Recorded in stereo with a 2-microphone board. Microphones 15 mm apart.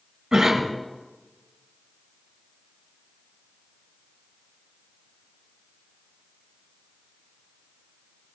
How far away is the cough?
About 2 m.